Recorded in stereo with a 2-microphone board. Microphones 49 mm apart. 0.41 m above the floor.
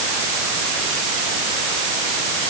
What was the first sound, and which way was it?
Only background noise.